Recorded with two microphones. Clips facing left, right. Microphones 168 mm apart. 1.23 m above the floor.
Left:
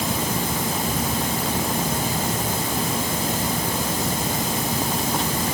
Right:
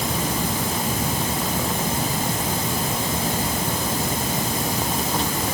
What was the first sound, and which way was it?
Only background noise.